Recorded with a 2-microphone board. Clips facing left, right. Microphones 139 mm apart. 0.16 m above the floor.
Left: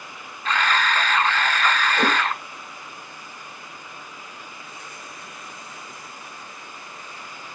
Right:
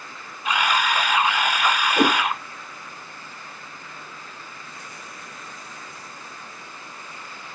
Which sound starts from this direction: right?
A whoosh, at 2.0 s.